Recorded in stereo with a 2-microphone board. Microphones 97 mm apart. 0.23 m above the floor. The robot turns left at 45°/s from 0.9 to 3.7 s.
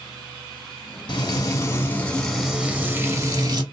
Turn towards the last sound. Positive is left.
turn(degrees=-60)